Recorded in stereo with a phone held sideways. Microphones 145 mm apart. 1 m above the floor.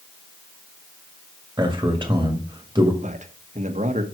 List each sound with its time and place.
1.6 s a man speaking: 25° right (ahead or behind), 2 m
3.0 s a man speaking: 55° right (ahead or behind), 1.4 m